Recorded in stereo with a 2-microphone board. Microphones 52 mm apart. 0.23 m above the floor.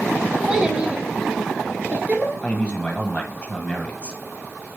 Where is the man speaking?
20° left (ahead or behind), 1.1 m.